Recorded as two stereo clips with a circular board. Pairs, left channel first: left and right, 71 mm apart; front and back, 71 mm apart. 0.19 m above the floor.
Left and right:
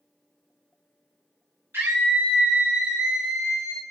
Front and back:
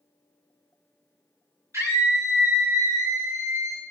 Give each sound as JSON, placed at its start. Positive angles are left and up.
{"t": 1.7, "sound": "a scream", "azimuth_deg": -140, "distance_m": 2.5}